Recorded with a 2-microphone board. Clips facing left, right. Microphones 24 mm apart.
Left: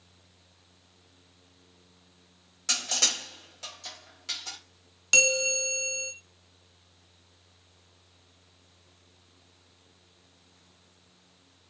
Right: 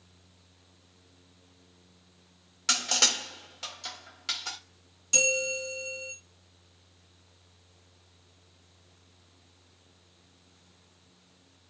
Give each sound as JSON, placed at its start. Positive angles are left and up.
{"t": 2.7, "sound": "crushing", "side_deg": -30, "distance_m": 1.2}
{"t": 5.1, "sound": "a bell", "side_deg": 50, "distance_m": 0.7}